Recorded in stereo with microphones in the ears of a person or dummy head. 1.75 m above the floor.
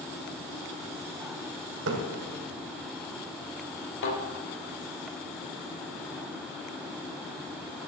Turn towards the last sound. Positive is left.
turn(degrees=65)  # may be behind; listen again after turning